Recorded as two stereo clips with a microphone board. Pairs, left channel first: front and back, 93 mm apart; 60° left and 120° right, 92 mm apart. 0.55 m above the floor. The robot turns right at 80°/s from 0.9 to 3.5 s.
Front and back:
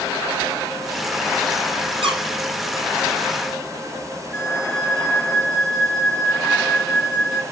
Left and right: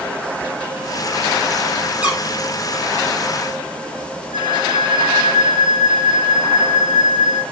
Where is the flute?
95° right, 2.5 m.